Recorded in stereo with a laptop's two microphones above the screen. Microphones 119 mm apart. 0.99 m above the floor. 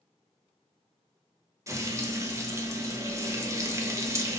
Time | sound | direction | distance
1.7 | frying | 25° right (ahead or behind) | 0.5 m